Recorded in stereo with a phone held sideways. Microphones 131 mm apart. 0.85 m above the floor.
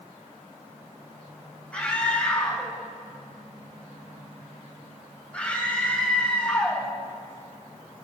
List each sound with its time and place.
1.7 s a scream: 10° left (ahead or behind), 5 m